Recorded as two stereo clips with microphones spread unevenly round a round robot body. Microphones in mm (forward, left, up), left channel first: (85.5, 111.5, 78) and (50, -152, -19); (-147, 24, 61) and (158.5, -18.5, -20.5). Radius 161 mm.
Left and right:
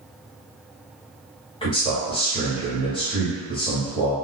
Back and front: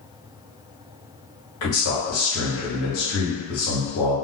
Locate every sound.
1.6 s a man speaking: 170° left, 1.1 m